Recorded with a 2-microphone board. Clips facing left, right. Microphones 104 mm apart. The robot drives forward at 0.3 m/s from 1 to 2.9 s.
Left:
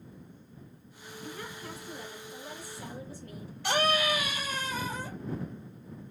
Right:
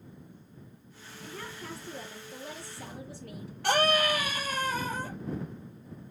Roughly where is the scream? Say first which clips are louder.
Right 2 dB; right.